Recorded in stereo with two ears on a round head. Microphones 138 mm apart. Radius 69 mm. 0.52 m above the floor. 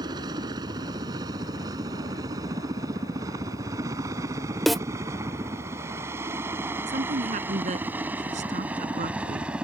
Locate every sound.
0.0 s a helicopter: 25° right (ahead or behind); by 9.7 s 5° right (ahead or behind)
4.7 s a snare drum: centre (ahead or behind)
6.9 s a woman speaking: 50° right (ahead or behind)